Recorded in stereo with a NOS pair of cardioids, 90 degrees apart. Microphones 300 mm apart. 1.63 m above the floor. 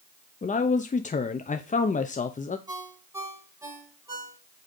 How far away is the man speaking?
About 0.9 m.